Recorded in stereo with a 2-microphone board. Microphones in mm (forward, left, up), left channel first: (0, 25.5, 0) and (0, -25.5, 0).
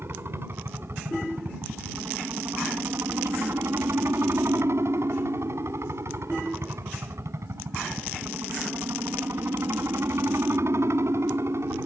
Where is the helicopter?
50° right (ahead or behind); by 11.9 s 65° right (ahead or behind).